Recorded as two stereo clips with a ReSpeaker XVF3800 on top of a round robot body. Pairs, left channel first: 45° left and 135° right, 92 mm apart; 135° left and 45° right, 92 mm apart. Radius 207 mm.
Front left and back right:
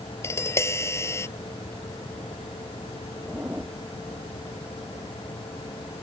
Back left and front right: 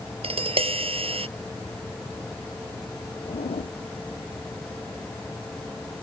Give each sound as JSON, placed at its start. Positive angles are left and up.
{"t": 0.2, "sound": "tapping", "azimuth_deg": -20}
{"t": 3.2, "sound": "a zipper", "azimuth_deg": 150}